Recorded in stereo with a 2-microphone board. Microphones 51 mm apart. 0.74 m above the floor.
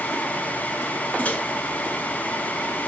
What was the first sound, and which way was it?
A microwave, 35° left (ahead or behind).